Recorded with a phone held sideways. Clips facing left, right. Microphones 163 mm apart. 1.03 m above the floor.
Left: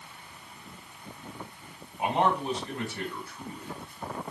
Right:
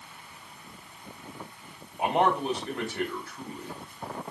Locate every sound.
2.0 s a man speaking: 85° right, 1.8 m